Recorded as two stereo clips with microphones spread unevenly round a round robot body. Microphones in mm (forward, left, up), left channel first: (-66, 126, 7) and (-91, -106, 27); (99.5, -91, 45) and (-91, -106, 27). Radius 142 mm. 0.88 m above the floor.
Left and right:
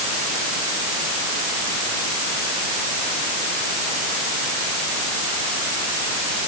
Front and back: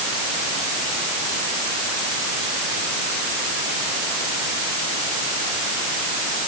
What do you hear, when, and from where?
Only background noise.